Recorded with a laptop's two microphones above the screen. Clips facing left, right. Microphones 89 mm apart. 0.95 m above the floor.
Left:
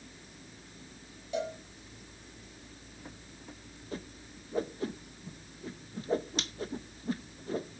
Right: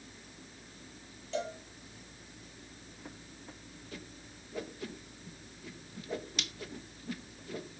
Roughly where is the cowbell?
Centre.